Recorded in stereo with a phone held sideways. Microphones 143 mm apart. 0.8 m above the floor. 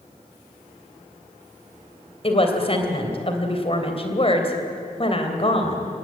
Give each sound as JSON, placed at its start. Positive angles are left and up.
{"t": 2.2, "sound": "a woman speaking", "side_deg": 40, "distance_m": 3.0}